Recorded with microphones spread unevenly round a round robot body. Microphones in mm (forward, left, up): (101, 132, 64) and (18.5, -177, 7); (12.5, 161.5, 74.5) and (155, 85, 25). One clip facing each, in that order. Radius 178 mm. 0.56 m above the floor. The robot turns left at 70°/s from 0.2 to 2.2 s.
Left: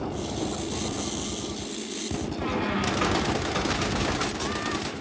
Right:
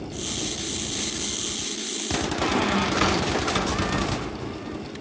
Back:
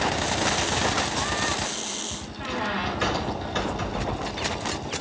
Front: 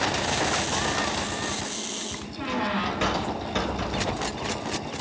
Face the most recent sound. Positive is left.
turn(degrees=-80)